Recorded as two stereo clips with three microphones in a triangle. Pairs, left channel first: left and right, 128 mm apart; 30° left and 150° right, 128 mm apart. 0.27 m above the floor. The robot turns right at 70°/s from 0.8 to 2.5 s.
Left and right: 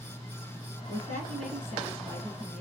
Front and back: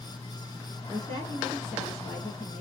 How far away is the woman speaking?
About 3 m.